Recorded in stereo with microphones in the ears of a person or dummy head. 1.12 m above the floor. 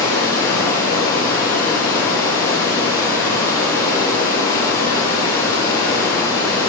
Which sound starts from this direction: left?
Running water, at 0.0 s.